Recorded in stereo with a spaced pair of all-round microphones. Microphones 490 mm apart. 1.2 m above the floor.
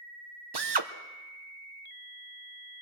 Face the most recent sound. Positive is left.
turn(degrees=-50)  # may be behind; listen again after turning